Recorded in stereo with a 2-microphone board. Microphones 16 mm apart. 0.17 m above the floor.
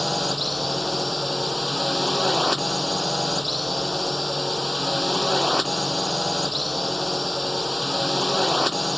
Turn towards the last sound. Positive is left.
turn(degrees=5)  # may be behind; listen again after turning